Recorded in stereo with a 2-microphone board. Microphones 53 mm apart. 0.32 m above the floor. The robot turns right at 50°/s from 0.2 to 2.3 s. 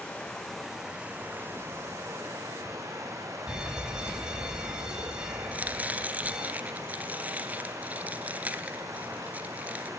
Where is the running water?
160° left, 6.5 m; by 10.0 s 95° right, 6.5 m.